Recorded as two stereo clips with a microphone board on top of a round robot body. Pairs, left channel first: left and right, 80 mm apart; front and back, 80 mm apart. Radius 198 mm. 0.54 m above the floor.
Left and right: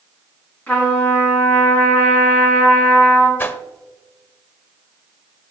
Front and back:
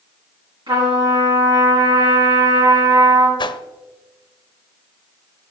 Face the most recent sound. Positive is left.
turn(degrees=25)